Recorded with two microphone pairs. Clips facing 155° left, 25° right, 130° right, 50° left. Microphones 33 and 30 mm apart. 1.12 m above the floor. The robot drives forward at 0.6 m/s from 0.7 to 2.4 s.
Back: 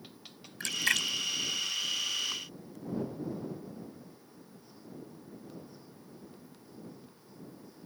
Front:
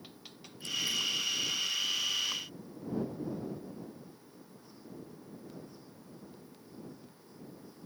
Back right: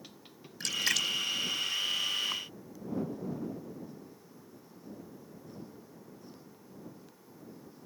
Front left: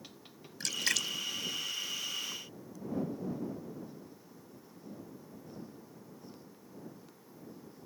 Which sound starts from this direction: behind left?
A splash, at 0.6 s.